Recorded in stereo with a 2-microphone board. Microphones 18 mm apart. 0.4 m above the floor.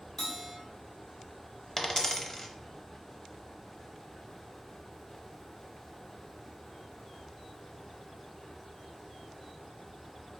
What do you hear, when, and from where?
0.2 s a bell: 25° left (ahead or behind), 1.7 m
1.8 s a dropped coin: 30° left (ahead or behind), 0.7 m